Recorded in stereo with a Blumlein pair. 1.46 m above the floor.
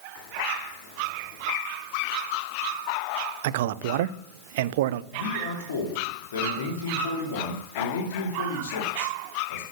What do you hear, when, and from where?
3.4 s a man speaking: 55° right, 0.6 m
5.1 s a man speaking: 60° left, 2.5 m